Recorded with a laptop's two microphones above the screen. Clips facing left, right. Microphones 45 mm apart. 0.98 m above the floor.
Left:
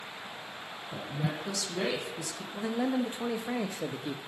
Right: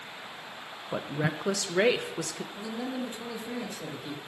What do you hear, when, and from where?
0.9 s a woman speaking: 65° right (ahead or behind), 0.5 m
2.5 s a man speaking: 30° left (ahead or behind), 0.8 m